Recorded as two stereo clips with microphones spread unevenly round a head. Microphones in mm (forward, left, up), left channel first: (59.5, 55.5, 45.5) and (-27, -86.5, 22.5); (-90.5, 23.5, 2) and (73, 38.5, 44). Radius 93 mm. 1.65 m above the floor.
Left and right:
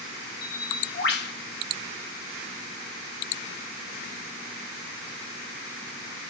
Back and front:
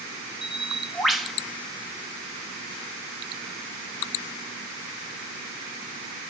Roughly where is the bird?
Left.